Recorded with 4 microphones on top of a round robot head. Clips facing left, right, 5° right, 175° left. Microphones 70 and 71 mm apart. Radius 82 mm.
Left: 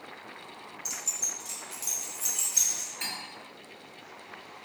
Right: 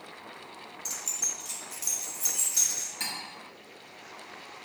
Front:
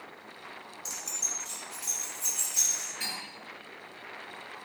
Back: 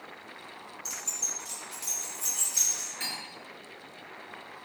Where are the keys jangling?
55° right, 0.6 m; by 2.9 s 125° right, 2.5 m.